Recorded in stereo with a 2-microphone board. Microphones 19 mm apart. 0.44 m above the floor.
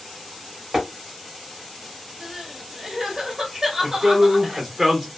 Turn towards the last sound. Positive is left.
turn(degrees=-25)  # may be behind; listen again after turning